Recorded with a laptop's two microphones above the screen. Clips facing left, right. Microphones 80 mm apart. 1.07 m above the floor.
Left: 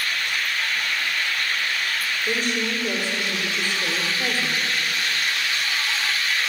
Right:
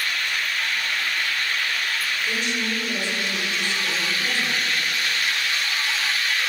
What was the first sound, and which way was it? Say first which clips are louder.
A woman speaking: left 4 dB; 50° left (ahead or behind).